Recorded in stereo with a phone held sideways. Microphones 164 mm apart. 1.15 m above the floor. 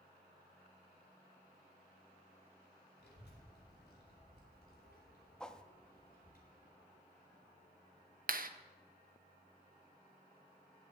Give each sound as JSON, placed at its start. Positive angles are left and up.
{"t": 3.0, "sound": "a child speaking", "side_deg": 90, "distance_m": 3.0}
{"t": 5.4, "sound": "a whoosh", "side_deg": 5, "distance_m": 0.6}
{"t": 8.3, "sound": "a clap", "side_deg": -60, "distance_m": 0.6}